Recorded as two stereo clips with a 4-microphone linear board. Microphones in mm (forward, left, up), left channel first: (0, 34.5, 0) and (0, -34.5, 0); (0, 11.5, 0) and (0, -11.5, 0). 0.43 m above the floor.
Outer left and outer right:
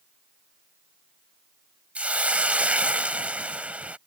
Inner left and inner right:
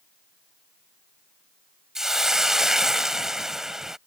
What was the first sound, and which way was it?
A hiss, 20° right (ahead or behind).